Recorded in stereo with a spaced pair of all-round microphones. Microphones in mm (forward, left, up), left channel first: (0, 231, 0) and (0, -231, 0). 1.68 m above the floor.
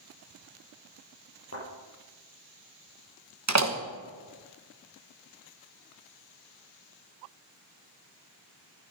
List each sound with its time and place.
1.5 s a thud: 30° left (ahead or behind), 5 m
3.5 s a door slam: 35° right (ahead or behind), 1.1 m